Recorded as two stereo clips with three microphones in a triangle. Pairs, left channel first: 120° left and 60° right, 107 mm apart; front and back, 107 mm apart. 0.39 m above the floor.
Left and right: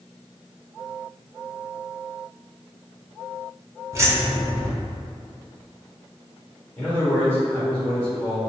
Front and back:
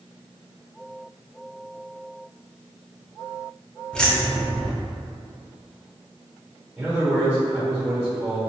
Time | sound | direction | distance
3.9 | keys jangling | 75° right | 0.5 m
6.8 | a man speaking | 165° left | 0.9 m